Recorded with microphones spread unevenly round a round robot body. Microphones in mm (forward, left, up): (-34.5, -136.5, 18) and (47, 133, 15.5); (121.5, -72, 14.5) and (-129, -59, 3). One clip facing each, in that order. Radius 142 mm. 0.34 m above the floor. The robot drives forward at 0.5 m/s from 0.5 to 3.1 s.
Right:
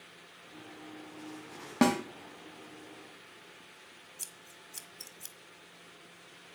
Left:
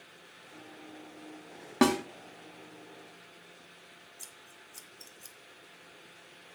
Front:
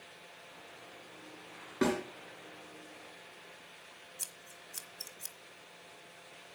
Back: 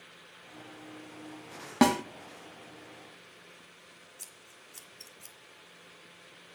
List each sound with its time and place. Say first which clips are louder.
1.8 s a snare drum: left 1 dB, back 6 dB; 160° left, 1.1 m
4.2 s scissors: even, front 1 dB; 70° right, 1.4 m